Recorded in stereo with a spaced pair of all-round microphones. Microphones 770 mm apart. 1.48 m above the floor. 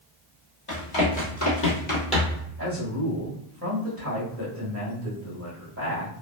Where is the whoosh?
I don't hear a whoosh.